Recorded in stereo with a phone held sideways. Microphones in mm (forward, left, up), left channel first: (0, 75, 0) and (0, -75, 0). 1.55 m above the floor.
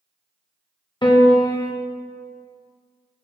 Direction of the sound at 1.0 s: 30° left (ahead or behind).